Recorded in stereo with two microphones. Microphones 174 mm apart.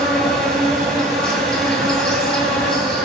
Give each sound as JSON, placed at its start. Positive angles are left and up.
{"t": 0.0, "sound": "an insect", "side_deg": 5, "distance_m": 2.5}